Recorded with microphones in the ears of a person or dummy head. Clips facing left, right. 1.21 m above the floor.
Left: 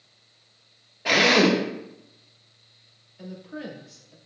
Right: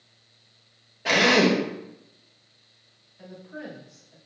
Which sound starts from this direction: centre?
A drill, at 1.1 s.